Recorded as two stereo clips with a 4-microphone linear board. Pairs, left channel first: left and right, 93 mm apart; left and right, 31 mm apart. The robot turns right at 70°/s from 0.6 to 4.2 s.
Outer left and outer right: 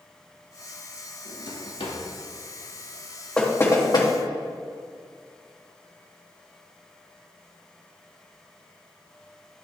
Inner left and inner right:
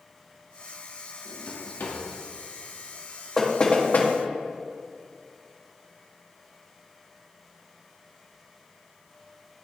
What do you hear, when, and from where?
1.2 s a drawer: 40° left (ahead or behind), 1.0 m; by 2.0 s 80° left, 1.0 m
3.4 s knocking: 5° left (ahead or behind), 1.0 m; by 4.1 s 60° left (ahead or behind), 1.0 m